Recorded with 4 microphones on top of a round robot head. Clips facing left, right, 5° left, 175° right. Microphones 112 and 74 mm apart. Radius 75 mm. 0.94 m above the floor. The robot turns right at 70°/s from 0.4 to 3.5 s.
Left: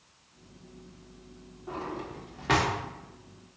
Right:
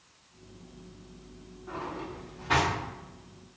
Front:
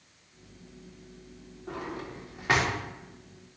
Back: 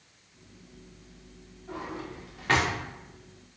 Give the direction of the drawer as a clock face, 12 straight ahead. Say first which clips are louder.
Left 1 dB, even; 11 o'clock.